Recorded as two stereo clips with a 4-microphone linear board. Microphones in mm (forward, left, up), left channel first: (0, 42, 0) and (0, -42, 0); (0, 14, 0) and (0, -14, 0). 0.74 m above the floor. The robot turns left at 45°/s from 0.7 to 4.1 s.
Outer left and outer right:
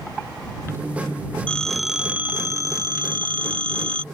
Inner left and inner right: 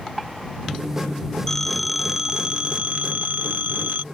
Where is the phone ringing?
15° left; by 4.0 s 100° right.